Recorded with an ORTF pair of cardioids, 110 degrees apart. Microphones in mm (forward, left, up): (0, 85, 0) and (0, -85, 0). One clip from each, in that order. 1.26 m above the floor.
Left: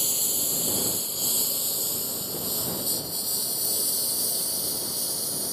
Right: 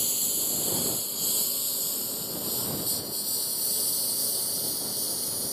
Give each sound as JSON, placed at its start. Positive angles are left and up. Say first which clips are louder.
{"t": 0.0, "sound": "a lawn mower", "louder": "left 2 dB", "azimuth_deg": 10}